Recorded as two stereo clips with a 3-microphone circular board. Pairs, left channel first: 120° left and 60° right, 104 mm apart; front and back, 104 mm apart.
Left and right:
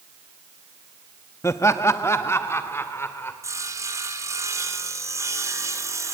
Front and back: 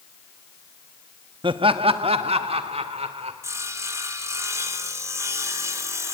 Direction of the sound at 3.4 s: 120° right.